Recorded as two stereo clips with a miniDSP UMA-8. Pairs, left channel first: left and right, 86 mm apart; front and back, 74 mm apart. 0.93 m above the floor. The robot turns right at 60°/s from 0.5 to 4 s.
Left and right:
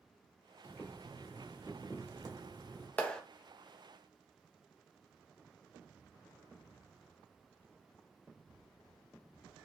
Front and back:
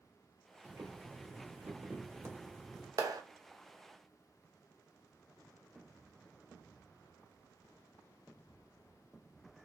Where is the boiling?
135° left, 1.0 m; by 2.9 s 90° right, 1.0 m.